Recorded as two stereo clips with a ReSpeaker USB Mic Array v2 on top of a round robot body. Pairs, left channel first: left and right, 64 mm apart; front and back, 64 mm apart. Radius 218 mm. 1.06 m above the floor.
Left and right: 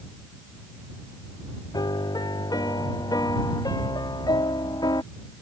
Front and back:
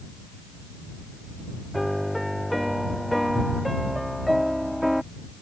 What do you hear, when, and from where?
1.7 s a piano: 90° left